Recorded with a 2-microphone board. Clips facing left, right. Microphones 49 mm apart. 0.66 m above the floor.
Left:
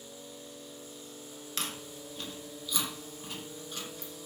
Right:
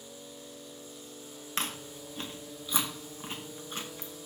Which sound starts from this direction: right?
Chewing, at 1.6 s.